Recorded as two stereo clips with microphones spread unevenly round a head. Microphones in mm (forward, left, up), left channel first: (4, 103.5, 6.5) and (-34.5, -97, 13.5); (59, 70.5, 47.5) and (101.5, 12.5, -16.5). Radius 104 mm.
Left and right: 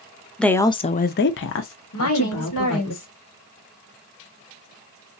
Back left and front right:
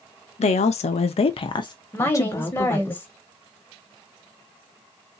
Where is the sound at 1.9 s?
60° left, 1.4 m.